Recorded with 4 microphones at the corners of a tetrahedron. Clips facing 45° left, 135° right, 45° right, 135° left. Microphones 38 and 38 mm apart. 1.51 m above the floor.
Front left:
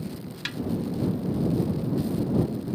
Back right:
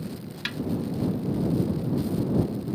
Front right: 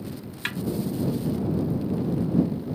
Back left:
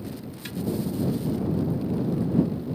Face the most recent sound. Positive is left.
turn(degrees=-55)